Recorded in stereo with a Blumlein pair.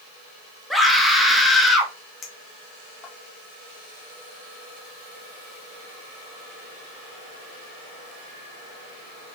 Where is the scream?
Straight ahead, 2 m.